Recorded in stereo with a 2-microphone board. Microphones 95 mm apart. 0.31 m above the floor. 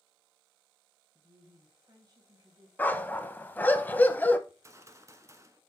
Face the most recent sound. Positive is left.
turn(degrees=-30)  # may be behind; listen again after turning